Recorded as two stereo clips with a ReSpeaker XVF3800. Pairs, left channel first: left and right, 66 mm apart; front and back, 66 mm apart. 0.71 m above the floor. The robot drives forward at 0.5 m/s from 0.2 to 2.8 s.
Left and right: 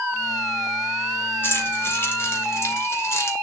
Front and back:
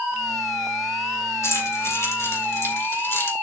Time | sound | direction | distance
1.4 | keys jangling | 40° left | 2.5 m